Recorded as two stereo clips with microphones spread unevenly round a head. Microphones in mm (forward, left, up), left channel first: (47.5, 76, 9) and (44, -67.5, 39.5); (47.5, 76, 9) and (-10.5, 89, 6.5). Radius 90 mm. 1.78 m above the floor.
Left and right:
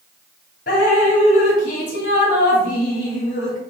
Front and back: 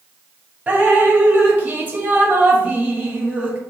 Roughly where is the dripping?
Behind left.